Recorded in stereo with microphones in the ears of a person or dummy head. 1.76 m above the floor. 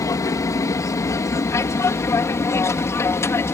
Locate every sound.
0.0 s an aircraft: 20° left (ahead or behind); by 3.5 s 15° left (ahead or behind)